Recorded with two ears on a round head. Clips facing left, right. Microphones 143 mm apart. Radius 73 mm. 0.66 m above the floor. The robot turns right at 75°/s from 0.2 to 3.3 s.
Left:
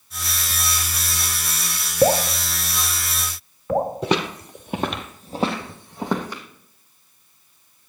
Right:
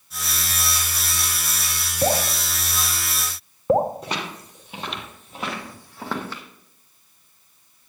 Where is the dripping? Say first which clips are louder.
Left 5 dB; 70° left (ahead or behind), 1.0 m; by 3.9 s 25° right (ahead or behind), 1.0 m.